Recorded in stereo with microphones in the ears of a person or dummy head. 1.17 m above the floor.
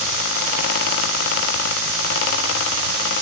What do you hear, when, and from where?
Only background noise.